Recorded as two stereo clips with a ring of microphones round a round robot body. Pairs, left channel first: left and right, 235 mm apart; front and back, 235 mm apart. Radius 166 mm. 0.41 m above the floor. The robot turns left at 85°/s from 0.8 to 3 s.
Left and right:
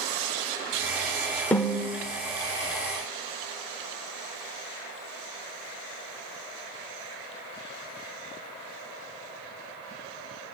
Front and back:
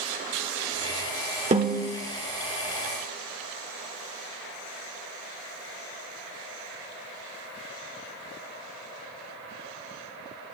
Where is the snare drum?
170° left, 1.5 m; by 1.9 s 130° left, 1.5 m.